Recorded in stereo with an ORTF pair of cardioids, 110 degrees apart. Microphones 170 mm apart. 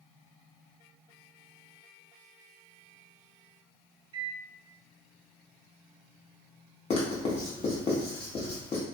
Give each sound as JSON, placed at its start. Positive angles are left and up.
{"t": 4.1, "sound": "a microwave", "azimuth_deg": -30, "distance_m": 0.6}
{"t": 6.9, "sound": "writing", "azimuth_deg": 35, "distance_m": 1.1}